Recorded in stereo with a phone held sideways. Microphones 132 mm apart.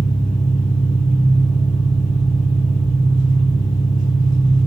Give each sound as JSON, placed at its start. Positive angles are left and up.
{"t": 0.0, "sound": "an engine running", "side_deg": 85, "distance_m": 10.0}